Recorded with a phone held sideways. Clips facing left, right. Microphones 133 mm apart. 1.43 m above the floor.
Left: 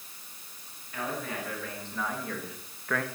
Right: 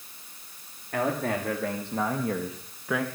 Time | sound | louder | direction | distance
0.9 | a man speaking | right 8 dB | 65° right (ahead or behind) | 2.5 m